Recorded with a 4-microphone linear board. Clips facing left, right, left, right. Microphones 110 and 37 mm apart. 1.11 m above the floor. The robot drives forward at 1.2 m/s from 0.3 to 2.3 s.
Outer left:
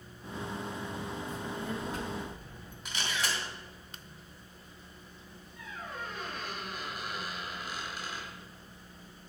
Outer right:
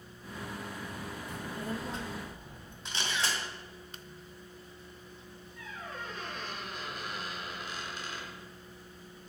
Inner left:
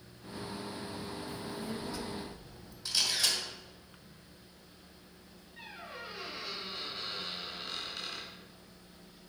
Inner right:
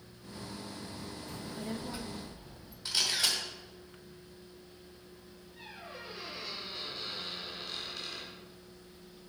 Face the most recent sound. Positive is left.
turn(degrees=5)  # may be behind; listen again after turning